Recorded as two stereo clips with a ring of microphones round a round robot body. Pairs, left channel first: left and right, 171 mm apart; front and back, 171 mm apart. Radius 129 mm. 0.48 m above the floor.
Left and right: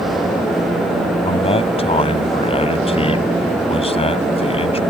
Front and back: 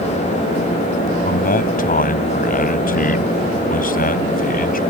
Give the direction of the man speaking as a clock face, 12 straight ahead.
11 o'clock.